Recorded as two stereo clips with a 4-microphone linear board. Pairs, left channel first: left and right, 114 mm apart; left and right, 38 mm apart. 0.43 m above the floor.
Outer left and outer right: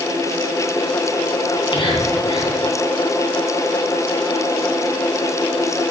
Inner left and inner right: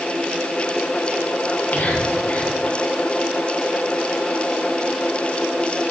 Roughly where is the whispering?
Left.